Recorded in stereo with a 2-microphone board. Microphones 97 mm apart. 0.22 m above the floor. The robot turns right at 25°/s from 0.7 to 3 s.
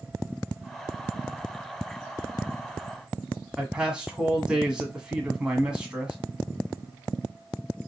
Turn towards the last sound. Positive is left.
turn(degrees=-10)  # may be behind; listen again after turning